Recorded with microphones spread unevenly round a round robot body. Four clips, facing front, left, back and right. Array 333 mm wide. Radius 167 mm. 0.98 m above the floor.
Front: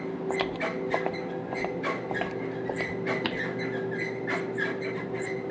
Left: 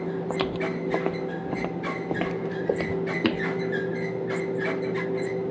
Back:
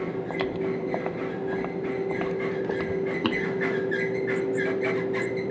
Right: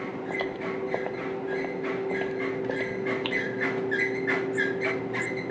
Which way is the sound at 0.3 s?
90° left.